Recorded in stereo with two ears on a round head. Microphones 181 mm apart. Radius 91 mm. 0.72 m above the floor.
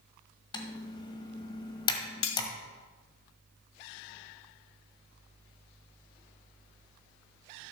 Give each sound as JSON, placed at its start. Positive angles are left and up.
{"t": 0.5, "sound": "typing on a keyboard", "side_deg": 25, "distance_m": 1.5}
{"t": 2.2, "sound": "cutlery clinking", "side_deg": 75, "distance_m": 1.0}